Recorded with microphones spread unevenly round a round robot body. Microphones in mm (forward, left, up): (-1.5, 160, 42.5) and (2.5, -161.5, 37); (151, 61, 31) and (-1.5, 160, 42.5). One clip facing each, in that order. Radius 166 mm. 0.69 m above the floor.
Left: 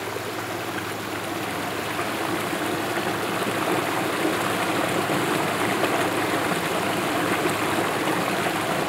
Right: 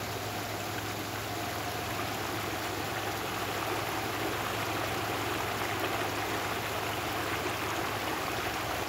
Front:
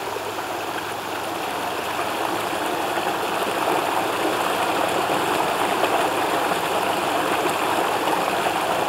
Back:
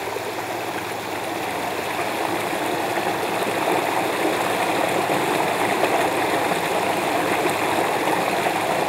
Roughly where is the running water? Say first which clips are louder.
Left 8 dB, back 1 dB; ahead left.